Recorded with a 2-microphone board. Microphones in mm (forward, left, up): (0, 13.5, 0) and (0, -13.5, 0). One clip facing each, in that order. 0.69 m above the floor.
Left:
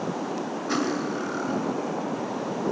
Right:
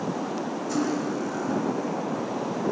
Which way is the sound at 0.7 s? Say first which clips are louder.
Even; 45° left (ahead or behind).